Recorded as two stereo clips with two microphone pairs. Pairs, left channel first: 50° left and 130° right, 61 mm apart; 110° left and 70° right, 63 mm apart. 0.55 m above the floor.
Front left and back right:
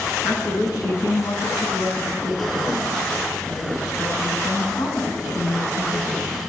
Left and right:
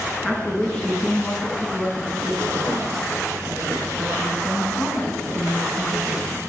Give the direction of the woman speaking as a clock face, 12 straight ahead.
11 o'clock.